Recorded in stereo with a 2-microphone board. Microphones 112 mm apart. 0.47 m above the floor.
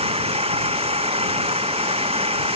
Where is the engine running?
60° right (ahead or behind).